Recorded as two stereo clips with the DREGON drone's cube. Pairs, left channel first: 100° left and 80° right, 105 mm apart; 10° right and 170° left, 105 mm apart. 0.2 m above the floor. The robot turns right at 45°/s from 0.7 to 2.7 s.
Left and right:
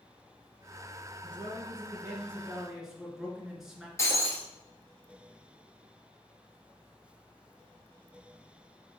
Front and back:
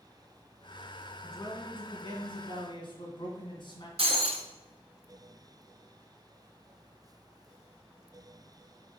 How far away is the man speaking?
About 2 m.